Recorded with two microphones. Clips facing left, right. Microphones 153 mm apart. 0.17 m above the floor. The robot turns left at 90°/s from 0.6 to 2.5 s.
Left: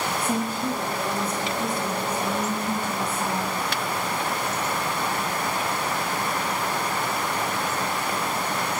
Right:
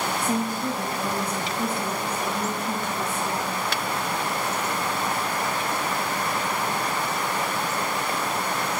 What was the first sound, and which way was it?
A woman speaking, 25° right.